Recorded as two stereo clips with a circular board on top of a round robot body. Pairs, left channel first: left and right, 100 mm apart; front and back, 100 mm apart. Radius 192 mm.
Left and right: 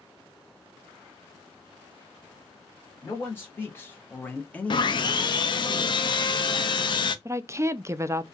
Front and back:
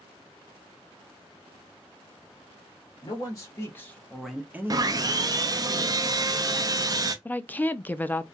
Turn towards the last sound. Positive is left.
turn(degrees=-60)